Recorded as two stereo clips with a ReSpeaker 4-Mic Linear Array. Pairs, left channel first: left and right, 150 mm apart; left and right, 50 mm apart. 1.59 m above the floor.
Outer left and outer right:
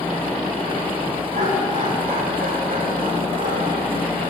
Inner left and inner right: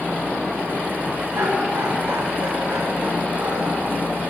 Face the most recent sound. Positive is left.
turn(degrees=-80)